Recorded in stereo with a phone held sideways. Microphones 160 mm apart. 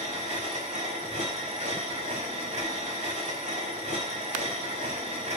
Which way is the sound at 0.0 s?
50° right (ahead or behind).